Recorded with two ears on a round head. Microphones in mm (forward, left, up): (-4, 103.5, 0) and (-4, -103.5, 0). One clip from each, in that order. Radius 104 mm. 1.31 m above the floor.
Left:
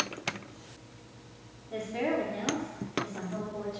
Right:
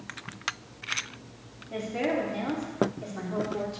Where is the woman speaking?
10° right (ahead or behind), 2.5 m; by 3.8 s 30° right (ahead or behind), 3 m.